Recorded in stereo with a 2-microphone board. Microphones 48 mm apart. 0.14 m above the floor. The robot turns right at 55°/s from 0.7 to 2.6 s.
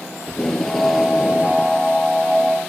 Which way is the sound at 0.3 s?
170° left.